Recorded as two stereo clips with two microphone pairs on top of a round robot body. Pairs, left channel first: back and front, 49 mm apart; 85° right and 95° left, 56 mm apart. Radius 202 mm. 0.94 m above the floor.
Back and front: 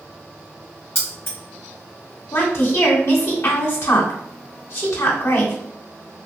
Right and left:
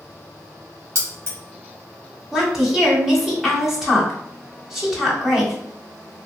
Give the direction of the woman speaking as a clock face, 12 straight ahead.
6 o'clock.